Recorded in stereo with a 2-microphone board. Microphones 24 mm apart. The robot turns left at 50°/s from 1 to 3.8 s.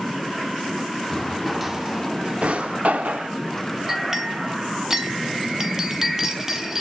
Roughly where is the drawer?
Centre.